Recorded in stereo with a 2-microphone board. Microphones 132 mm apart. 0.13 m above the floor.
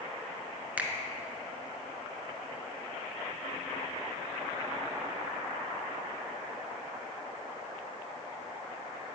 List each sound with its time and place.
0.8 s a finger snap: 10° right (ahead or behind), 1.1 m